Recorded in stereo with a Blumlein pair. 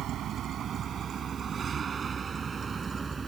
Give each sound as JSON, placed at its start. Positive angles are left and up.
{"t": 0.0, "sound": "a vehicle", "azimuth_deg": -30}